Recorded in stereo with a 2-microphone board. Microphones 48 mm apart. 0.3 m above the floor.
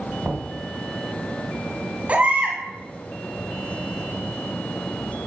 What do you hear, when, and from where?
0.2 s knocking: 40° right (ahead or behind), 1.6 m
2.1 s a baby crying: 30° right (ahead or behind), 1.6 m